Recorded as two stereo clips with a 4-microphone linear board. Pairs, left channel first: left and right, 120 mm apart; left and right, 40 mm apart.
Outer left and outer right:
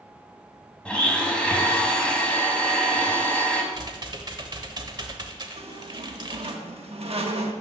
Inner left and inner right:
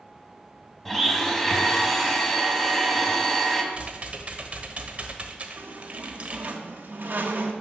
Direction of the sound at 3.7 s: 35° right (ahead or behind).